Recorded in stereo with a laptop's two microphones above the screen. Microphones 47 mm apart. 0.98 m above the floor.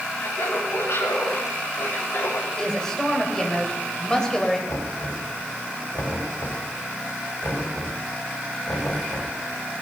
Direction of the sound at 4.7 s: 90° left.